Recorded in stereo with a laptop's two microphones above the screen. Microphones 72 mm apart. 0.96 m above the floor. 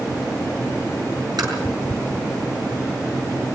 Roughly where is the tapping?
Right.